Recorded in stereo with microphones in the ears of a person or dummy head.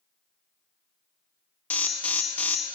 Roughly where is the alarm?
Centre.